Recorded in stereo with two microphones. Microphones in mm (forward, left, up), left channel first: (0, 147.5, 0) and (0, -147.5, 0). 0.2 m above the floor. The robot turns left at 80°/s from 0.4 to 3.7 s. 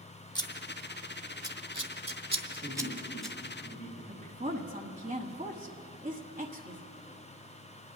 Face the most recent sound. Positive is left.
turn(degrees=-25)  # may be behind; listen again after turning